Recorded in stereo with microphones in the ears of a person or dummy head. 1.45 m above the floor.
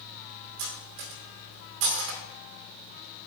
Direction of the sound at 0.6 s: 70° right (ahead or behind).